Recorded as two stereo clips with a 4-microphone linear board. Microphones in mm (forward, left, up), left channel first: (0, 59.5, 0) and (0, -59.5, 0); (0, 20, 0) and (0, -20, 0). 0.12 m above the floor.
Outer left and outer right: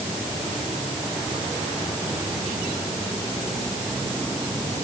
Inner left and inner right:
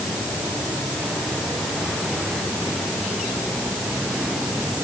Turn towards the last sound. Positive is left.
No sound to turn to.